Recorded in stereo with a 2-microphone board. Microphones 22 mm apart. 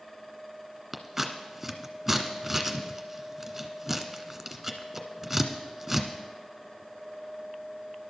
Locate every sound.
0.9 s scissors: 10° right (ahead or behind), 1.5 m